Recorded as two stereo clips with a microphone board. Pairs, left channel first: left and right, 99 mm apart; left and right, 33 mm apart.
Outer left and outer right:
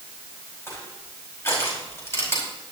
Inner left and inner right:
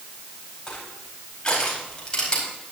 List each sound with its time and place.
0.7 s crushing: 25° left (ahead or behind), 4.5 m